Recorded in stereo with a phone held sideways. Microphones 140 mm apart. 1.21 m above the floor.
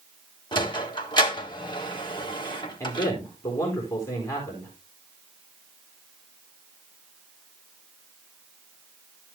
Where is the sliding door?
35° left (ahead or behind), 1.9 m.